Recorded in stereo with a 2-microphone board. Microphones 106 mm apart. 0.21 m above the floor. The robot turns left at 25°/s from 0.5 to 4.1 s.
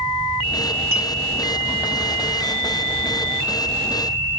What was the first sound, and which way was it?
A clink, 25° right (ahead or behind).